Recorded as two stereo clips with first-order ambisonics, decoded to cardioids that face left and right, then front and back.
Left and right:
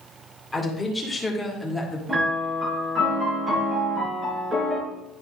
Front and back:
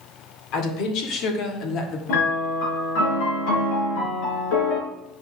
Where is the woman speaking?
5° left, 1.9 m; by 2.0 s 5° right, 1.2 m.